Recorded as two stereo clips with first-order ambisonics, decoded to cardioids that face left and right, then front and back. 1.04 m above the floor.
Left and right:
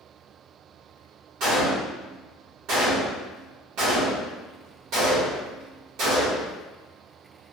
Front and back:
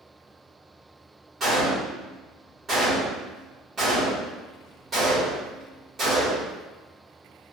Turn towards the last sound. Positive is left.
turn(degrees=-115)